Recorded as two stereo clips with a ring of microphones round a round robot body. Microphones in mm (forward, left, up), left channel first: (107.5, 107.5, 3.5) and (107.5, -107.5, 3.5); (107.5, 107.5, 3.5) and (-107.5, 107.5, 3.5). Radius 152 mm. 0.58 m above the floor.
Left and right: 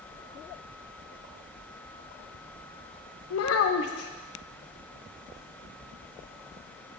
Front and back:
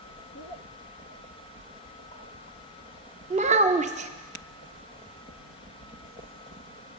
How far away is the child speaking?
About 0.5 m.